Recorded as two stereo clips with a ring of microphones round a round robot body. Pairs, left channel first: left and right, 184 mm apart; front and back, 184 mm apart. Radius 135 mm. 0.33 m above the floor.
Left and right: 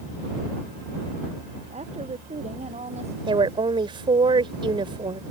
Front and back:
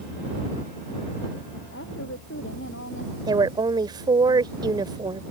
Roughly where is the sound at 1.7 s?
Ahead right.